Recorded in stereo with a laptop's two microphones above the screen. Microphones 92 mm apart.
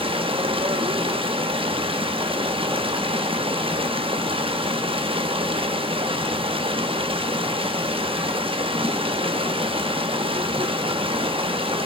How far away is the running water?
About 0.9 m.